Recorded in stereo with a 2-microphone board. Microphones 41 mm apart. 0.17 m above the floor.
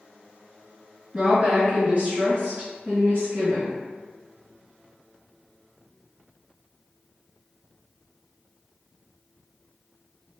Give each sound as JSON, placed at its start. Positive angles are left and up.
{"t": 1.1, "sound": "a woman speaking", "side_deg": -20, "distance_m": 1.8}